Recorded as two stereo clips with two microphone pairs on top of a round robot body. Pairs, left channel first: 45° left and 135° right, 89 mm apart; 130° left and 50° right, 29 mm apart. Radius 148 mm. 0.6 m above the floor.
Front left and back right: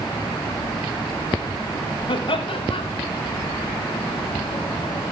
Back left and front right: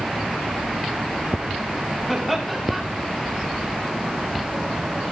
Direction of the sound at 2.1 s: 50° left.